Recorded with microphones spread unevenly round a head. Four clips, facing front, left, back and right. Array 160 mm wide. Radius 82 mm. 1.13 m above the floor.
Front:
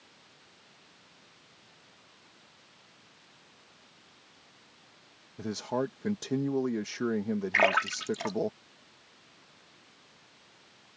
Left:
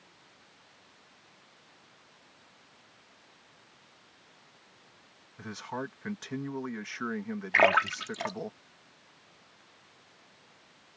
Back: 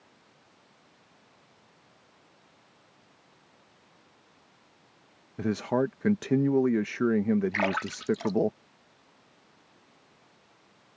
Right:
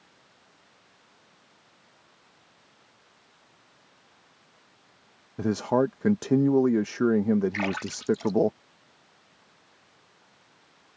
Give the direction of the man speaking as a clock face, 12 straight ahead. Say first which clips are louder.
Right 14 dB, back 5 dB; 4 o'clock.